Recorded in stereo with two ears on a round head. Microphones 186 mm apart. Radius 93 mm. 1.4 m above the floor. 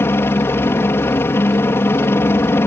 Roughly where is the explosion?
No explosion in this recording.